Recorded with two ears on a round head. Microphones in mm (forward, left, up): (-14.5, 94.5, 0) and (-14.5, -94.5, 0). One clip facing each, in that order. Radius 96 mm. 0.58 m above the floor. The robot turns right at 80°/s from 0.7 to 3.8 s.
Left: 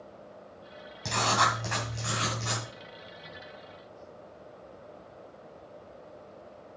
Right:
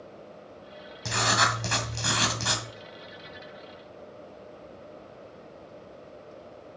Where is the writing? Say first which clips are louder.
Even; straight behind, 2 m; by 2.6 s 50° right, 2 m.